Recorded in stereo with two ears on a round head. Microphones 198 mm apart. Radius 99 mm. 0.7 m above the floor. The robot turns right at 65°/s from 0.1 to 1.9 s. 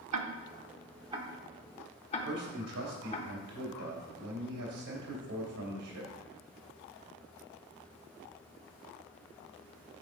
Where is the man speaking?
75° right (ahead or behind), 2.5 m.